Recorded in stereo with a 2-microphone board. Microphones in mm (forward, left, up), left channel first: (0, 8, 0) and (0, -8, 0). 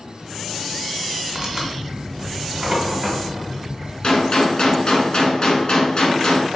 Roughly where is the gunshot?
Left.